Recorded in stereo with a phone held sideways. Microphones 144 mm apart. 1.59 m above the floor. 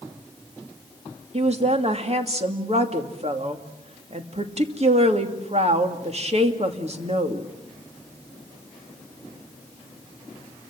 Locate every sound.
1.3 s a woman speaking: 50° right (ahead or behind), 2.5 m